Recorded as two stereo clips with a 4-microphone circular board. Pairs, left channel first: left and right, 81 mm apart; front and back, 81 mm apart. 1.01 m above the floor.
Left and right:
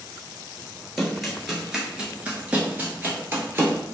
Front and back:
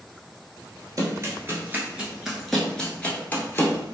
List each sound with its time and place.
1.0 s running footsteps: straight behind, 1.2 m; by 3.8 s 40° right, 1.3 m